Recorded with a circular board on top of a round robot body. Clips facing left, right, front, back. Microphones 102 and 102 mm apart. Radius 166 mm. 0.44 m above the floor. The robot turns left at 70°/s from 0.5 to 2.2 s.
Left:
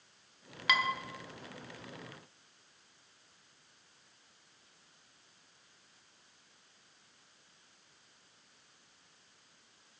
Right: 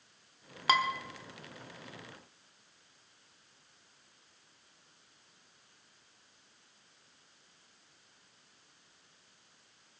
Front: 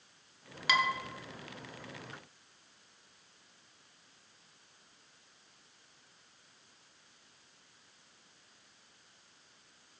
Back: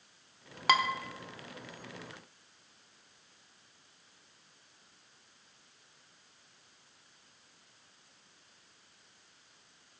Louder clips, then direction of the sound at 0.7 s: Right 4 dB, back 3 dB; 140° right.